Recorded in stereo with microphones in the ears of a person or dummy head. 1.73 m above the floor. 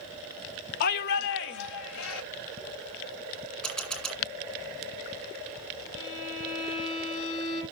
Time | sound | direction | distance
0.8 | a shout | 55° left (ahead or behind) | 0.8 m
3.6 | a camera shutter | centre (ahead or behind) | 2.5 m
6.0 | a violin | 70° left (ahead or behind) | 4.5 m